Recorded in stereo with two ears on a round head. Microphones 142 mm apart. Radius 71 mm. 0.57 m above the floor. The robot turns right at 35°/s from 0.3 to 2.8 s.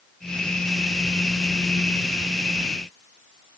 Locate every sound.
Only background noise.